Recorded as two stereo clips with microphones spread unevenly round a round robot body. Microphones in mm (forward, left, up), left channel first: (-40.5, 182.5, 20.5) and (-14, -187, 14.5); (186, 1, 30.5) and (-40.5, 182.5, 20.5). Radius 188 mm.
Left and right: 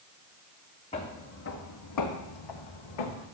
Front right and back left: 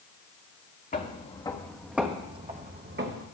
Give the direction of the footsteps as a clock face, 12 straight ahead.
11 o'clock.